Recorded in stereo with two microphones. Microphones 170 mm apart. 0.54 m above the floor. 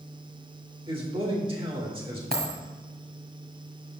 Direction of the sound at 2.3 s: 65° right (ahead or behind).